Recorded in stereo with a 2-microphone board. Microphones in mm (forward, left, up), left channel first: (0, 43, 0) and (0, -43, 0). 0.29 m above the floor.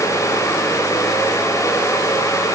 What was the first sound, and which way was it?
Only background noise.